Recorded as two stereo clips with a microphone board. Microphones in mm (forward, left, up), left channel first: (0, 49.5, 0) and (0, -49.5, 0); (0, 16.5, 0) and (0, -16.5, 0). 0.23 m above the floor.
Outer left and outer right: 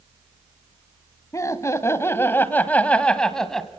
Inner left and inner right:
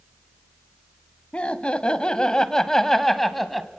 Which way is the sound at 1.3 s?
35° left (ahead or behind).